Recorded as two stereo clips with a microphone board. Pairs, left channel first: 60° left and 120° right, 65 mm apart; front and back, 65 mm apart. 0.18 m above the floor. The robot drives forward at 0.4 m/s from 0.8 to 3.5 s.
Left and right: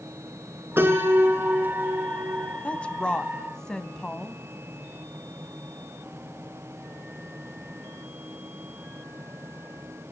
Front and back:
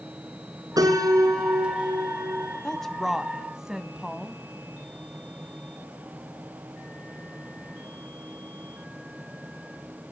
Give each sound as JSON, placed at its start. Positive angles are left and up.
{"t": 0.8, "sound": "a piano", "azimuth_deg": -175, "distance_m": 4.0}
{"t": 2.6, "sound": "a woman speaking", "azimuth_deg": 55, "distance_m": 1.0}